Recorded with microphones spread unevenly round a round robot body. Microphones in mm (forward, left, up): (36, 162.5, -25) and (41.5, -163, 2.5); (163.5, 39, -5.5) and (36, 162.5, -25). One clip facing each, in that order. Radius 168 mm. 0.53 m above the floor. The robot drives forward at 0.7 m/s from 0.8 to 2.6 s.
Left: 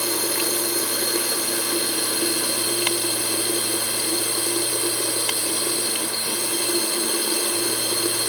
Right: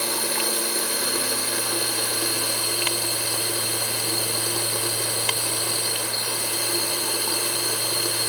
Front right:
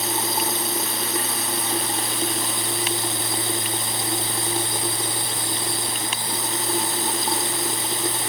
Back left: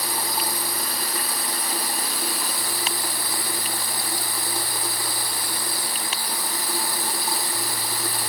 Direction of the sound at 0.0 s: 20° left.